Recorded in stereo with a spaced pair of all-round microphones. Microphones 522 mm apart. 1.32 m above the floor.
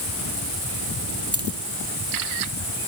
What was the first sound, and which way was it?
A dropped coin, 25° right (ahead or behind).